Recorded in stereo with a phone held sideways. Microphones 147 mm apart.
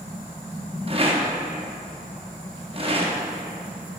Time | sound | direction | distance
0.9 | a rattle | 40° right (ahead or behind) | 0.8 m